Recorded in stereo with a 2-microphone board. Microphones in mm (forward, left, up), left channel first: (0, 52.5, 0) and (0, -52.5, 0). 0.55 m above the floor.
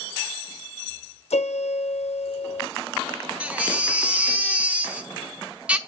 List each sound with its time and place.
1.3 s a piano: 85° left, 0.7 m
3.4 s a baby crying: 15° right (ahead or behind), 0.8 m